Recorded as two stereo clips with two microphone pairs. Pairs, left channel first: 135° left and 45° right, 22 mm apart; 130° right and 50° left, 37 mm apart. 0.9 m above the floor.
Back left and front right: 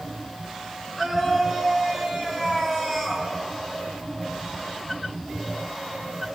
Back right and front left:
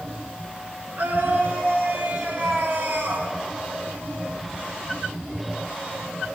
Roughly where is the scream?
Ahead.